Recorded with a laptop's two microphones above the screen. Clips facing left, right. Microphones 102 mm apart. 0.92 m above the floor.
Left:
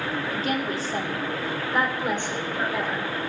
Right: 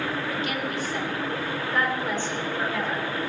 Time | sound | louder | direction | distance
0.3 | a woman speaking | left 2 dB | 40° left (ahead or behind) | 1.6 m